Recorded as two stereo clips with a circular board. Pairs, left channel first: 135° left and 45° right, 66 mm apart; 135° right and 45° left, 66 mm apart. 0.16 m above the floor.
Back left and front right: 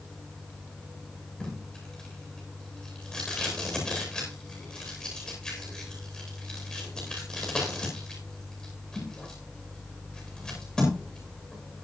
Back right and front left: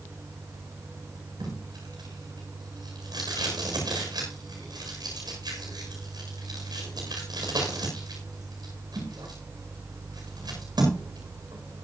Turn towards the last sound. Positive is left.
turn(degrees=55)